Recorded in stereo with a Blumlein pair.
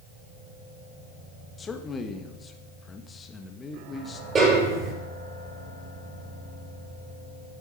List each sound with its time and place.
1.6 s a man speaking: 20° left, 1.7 m
4.3 s a snare drum: 20° right, 6 m